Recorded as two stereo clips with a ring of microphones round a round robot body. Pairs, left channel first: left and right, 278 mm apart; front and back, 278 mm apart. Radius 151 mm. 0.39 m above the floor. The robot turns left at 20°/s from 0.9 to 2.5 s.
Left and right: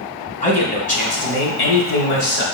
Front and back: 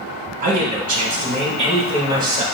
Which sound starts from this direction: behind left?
A man speaking, at 0.4 s.